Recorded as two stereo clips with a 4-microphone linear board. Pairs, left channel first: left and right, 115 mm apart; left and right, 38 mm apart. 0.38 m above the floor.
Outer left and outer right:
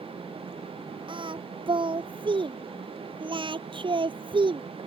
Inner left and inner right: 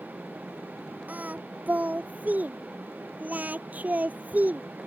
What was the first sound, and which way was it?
Singing, 45° right (ahead or behind).